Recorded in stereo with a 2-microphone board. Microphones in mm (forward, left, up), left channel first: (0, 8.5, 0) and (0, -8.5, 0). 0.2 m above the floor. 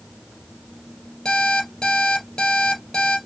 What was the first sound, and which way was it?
An alarm clock, 55° left (ahead or behind).